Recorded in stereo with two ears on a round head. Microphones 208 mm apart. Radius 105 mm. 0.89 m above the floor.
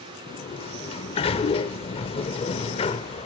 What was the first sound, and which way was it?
A sliding door, 25° left (ahead or behind).